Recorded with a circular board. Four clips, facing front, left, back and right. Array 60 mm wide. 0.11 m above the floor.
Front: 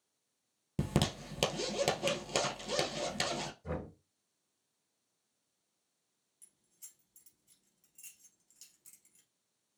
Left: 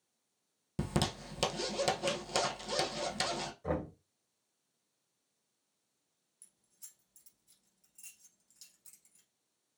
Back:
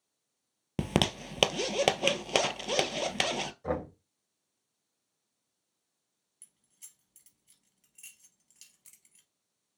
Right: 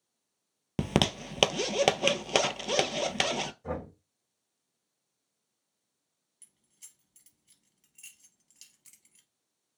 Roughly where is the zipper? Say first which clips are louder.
Right 7 dB, back 4 dB; behind right.